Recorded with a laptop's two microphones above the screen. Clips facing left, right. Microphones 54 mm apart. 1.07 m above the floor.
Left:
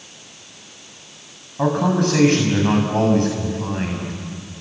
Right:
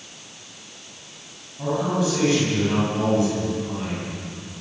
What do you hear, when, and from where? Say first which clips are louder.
1.6 s a man speaking: left 5 dB; 55° left (ahead or behind), 6 m